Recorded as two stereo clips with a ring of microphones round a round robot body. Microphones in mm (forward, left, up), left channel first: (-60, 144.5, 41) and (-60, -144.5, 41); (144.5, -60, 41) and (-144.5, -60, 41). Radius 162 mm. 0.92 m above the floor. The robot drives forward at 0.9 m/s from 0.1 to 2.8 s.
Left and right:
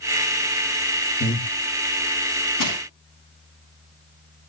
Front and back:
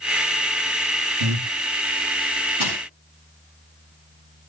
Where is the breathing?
150° left, 1.7 m; by 1.5 s 155° left, 1.9 m.